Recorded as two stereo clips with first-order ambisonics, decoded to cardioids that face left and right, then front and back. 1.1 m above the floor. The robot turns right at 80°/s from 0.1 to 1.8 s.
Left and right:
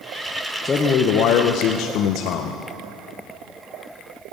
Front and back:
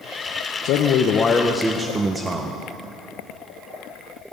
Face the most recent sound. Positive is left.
turn(degrees=110)